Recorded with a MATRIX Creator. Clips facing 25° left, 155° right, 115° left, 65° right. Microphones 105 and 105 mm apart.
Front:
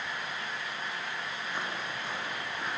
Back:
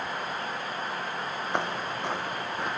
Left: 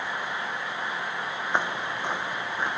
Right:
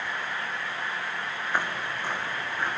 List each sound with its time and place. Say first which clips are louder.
1.5 s footsteps: back 7 dB, left 2 dB; straight behind, 2.5 m; by 2.8 s 175° right, 4 m